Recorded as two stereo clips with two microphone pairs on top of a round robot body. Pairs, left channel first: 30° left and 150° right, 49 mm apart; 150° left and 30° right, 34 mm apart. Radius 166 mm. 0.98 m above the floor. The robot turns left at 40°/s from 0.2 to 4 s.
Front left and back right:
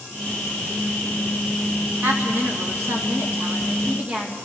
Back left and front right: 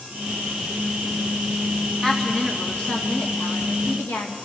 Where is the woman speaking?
125° right, 2.5 m; by 4.4 s 155° left, 2.5 m.